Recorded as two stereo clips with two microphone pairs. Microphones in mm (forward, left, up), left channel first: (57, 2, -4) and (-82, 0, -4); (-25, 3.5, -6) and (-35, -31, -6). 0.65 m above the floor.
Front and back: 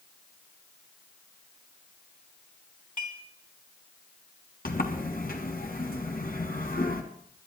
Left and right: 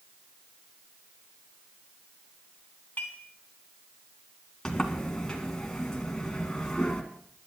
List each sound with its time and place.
3.0 s dishes clattering: 20° left, 3.5 m
4.7 s a sliding door: straight ahead, 2 m